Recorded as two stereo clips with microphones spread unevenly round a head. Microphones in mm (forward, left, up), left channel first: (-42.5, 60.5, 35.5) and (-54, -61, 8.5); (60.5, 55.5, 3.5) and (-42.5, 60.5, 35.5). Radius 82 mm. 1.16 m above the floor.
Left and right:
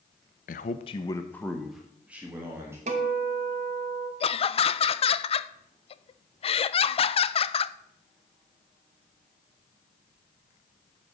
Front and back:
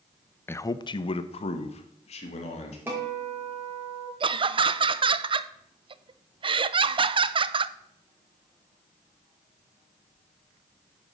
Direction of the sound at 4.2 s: 130° left.